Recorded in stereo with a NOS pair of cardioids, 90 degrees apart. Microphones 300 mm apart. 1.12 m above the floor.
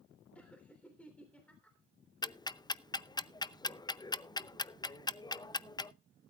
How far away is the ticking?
About 0.6 m.